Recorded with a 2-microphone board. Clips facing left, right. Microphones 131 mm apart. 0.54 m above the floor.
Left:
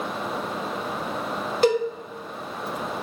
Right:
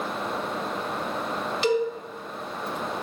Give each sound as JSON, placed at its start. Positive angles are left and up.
{"t": 1.6, "sound": "a cowbell", "side_deg": 50, "distance_m": 0.7}